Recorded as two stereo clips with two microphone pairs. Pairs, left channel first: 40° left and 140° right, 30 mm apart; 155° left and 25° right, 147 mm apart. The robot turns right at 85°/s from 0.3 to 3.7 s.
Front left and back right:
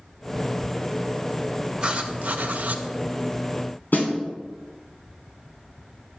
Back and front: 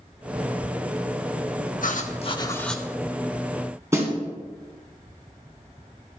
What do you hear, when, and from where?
1.8 s writing: 165° left, 0.6 m; by 2.8 s 110° right, 0.6 m
3.9 s a snare drum: 45° left, 1.9 m